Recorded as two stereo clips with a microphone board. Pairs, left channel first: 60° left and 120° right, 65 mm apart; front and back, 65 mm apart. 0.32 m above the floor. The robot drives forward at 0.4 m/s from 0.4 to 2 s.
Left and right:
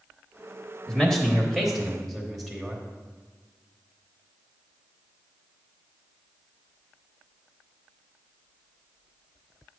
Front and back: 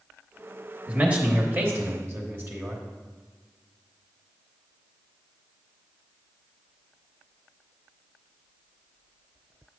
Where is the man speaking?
135° left, 1.3 m; by 2.8 s 150° left, 1.5 m.